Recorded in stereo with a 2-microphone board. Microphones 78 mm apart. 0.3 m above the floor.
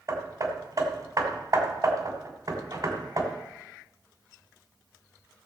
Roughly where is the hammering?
Right.